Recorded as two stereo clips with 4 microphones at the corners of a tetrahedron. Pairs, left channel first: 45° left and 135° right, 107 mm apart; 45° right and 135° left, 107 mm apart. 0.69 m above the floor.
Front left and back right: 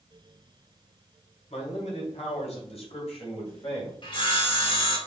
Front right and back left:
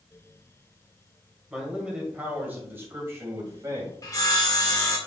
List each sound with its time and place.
1.5 s a man speaking: 50° left, 2.5 m; by 3.9 s 75° left, 3 m
4.0 s sawing: 10° left, 1.7 m